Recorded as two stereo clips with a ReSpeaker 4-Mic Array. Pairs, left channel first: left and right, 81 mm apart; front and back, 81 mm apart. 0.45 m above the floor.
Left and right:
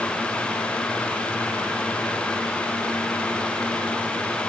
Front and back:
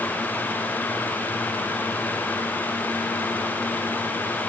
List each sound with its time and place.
Only background noise.